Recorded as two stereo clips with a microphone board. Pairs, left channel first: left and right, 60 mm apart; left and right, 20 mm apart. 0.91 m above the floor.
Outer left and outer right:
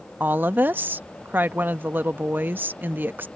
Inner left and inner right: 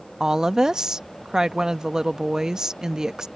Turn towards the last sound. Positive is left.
turn(degrees=-35)  # may be behind; listen again after turning